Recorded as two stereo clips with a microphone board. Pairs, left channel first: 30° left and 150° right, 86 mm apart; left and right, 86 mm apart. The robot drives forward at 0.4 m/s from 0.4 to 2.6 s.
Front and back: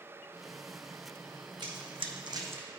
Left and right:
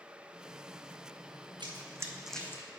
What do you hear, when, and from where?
1.6 s running footsteps: 120° right, 1.1 m; by 2.7 s 140° left, 0.9 m